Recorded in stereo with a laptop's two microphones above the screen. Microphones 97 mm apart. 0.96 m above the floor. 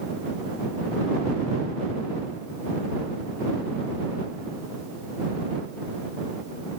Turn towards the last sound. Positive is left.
No sound to turn to.